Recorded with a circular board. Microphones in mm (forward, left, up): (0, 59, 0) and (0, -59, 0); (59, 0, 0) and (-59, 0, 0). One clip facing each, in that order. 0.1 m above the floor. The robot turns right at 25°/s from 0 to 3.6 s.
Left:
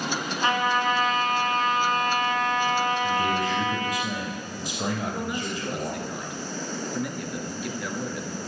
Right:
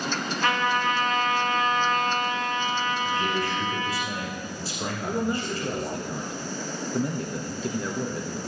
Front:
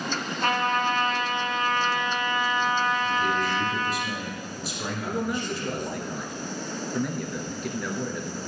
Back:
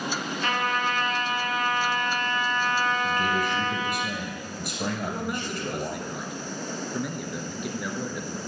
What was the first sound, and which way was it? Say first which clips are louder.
A trumpet: left 1 dB, front 3 dB; 25° left.